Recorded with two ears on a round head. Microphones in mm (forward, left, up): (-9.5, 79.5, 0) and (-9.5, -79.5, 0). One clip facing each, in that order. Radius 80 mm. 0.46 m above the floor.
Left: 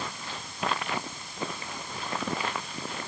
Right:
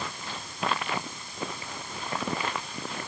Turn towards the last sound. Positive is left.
No sound to turn to.